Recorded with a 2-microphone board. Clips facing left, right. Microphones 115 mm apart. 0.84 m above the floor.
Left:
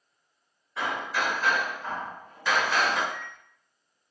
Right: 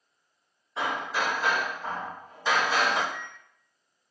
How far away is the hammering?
About 0.8 m.